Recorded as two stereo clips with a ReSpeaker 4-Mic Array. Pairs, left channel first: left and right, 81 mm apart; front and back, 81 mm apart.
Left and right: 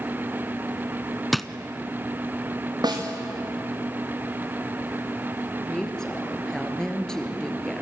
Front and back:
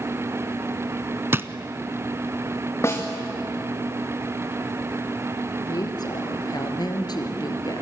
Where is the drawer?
Straight behind, 0.8 m.